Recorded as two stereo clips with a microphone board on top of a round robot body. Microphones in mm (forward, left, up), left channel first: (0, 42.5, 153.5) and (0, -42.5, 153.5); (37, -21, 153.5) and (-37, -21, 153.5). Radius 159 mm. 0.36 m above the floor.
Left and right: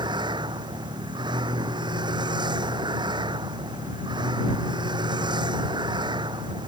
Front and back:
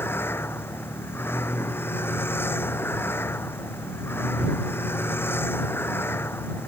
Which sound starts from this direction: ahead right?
A vehicle, at 0.0 s.